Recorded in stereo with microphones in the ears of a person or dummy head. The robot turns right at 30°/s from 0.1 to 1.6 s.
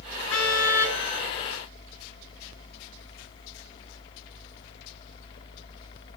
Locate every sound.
0.3 s a car horn: 75° left (ahead or behind), 7.5 m; by 1.0 s 55° left (ahead or behind), 7.5 m